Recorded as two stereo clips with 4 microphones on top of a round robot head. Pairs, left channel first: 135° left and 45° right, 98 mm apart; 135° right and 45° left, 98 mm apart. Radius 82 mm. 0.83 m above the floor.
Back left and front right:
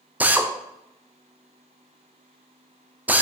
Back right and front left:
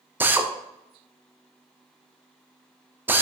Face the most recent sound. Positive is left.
turn(degrees=5)